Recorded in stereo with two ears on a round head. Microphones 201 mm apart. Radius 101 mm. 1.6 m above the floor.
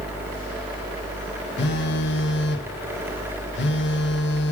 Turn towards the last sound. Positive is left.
turn(degrees=50)  # may be behind; listen again after turning